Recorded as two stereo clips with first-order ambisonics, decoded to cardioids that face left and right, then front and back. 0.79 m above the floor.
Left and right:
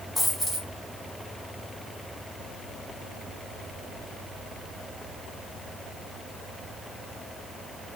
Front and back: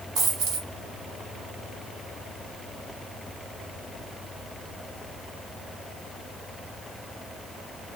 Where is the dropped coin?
170° right, 1.3 m.